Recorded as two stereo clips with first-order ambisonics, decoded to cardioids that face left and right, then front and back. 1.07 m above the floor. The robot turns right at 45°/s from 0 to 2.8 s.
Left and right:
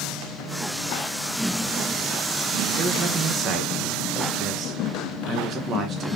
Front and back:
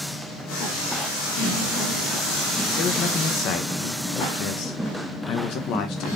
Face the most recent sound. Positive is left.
turn(degrees=-30)